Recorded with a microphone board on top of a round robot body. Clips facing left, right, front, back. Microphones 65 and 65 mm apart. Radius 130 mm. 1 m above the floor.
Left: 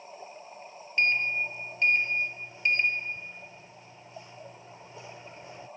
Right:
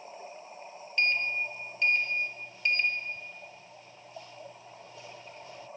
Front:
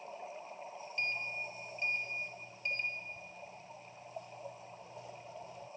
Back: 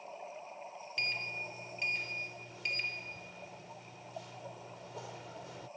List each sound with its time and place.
1.0 s a sliding door: 160° left